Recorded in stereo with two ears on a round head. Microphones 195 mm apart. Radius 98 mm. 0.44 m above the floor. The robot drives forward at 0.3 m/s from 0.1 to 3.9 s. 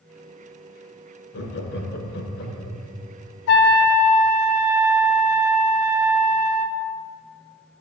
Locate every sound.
1.3 s laughter: 50° left (ahead or behind), 1.2 m; by 2.8 s 45° left (ahead or behind), 1.3 m
3.5 s a trumpet: 50° left (ahead or behind), 0.7 m; by 6.8 s 45° left (ahead or behind), 0.8 m